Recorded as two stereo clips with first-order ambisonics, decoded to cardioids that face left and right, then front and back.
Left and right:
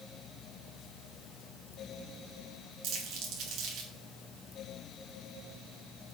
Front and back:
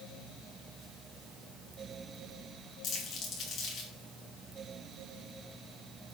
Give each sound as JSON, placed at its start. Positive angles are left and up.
{"t": 2.8, "sound": "crumpling", "azimuth_deg": -55, "distance_m": 2.5}